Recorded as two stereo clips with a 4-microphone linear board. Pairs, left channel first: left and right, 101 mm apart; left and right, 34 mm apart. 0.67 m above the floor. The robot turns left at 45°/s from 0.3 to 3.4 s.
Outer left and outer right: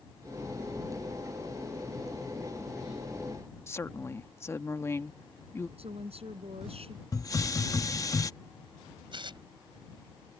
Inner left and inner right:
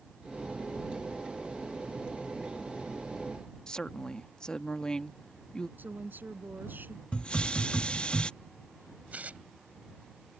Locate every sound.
3.7 s a woman speaking: 25° left (ahead or behind)
5.8 s a woman speaking: 80° right
7.1 s a hiss: 35° left (ahead or behind)
9.1 s tearing paper: 55° right (ahead or behind)